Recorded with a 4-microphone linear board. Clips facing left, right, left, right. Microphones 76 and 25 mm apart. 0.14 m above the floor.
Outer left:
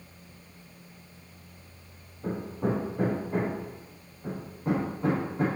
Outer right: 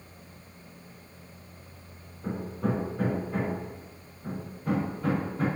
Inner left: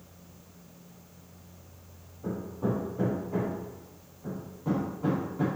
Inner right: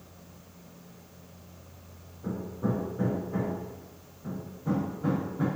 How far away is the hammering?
About 3.5 m.